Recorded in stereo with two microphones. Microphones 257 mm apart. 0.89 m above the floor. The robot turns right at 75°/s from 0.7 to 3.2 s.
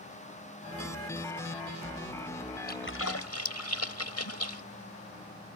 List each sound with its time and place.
2.7 s a splash: 35° left (ahead or behind); by 4.6 s 70° left (ahead or behind)